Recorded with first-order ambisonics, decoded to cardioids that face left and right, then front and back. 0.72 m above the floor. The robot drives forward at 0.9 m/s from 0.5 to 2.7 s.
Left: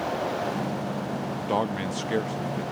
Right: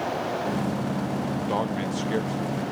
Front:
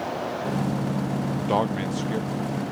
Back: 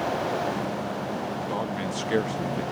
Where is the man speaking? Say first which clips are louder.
Left 2 dB, front 5 dB; 10° left, 0.7 m; by 2.6 s 175° left, 0.9 m.